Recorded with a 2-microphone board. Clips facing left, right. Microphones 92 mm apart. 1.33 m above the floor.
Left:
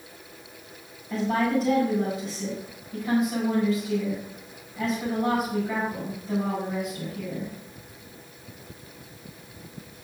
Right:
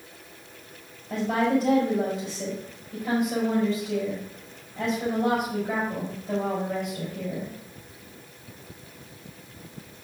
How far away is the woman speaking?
About 6 m.